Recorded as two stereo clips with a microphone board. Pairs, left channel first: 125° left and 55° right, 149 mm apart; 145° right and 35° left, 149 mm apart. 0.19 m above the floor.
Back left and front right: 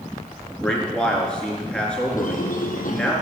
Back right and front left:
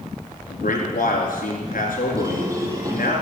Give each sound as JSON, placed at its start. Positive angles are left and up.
{"t": 0.5, "sound": "a man speaking", "azimuth_deg": -150, "distance_m": 4.0}
{"t": 2.2, "sound": "a squeak", "azimuth_deg": 100, "distance_m": 2.0}